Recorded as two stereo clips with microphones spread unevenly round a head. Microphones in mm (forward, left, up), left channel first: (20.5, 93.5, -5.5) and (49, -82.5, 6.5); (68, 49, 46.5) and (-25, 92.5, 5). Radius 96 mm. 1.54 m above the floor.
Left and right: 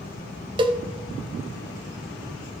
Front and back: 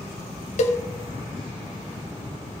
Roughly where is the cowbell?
Ahead.